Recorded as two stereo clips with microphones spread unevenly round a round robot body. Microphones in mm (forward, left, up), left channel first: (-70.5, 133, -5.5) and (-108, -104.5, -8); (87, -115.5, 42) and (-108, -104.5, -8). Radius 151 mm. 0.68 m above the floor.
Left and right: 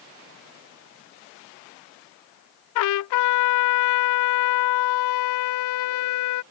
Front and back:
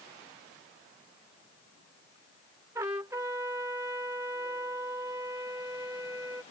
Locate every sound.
2.8 s a trumpet: 95° left